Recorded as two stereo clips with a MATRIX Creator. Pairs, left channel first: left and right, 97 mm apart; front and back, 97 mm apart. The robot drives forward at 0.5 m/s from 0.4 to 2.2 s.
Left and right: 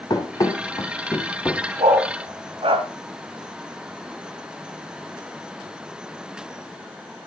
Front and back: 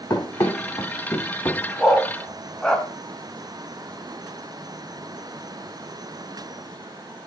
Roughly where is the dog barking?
Right.